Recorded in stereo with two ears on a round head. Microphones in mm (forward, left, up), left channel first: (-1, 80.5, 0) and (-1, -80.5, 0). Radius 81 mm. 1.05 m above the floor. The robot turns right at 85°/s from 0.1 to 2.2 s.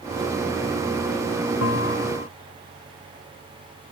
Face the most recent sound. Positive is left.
turn(degrees=140)